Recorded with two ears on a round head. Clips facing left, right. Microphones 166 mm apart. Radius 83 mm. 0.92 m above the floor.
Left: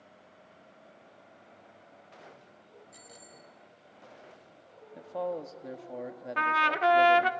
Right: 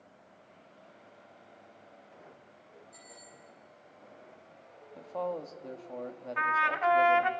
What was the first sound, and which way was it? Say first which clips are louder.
A bicycle bell: left 1 dB; 40° left (ahead or behind).